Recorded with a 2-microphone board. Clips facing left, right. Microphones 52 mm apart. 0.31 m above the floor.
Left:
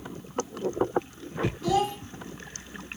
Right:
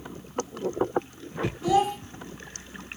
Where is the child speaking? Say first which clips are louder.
Right 3 dB; 15° right (ahead or behind), 1.1 m.